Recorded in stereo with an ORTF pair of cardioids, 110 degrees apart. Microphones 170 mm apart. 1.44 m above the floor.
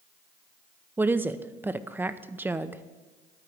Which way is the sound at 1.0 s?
10° right.